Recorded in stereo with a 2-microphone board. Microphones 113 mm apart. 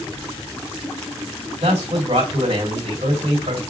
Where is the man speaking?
60° right (ahead or behind), 1.5 m.